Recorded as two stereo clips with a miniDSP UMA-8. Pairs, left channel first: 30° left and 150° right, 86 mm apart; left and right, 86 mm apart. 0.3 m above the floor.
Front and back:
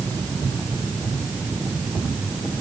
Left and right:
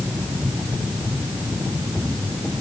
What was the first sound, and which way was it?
Only background noise.